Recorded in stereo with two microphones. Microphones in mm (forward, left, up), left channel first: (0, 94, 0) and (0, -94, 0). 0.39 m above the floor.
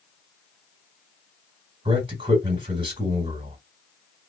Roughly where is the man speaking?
Right.